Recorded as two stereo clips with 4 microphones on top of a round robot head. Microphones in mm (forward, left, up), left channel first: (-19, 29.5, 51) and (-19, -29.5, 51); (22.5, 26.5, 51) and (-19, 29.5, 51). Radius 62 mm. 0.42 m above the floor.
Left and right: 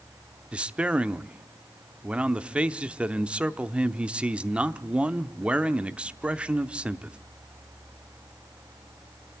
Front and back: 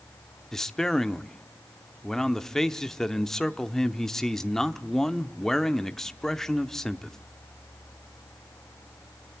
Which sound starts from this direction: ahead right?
A man speaking, at 0.5 s.